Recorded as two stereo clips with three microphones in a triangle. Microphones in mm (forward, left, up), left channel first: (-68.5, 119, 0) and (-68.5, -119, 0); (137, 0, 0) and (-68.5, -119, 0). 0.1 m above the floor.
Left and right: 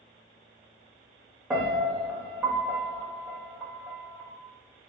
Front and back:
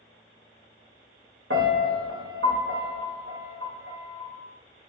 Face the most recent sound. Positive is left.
turn(degrees=-175)